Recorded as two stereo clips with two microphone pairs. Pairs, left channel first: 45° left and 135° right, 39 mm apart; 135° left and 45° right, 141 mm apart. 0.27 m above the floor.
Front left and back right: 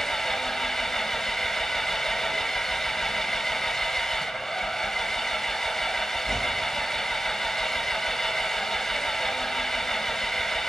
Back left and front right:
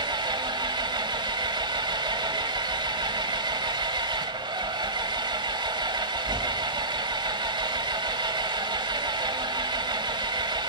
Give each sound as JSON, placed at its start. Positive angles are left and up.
{"t": 0.0, "sound": "an engine running", "azimuth_deg": -30, "distance_m": 1.1}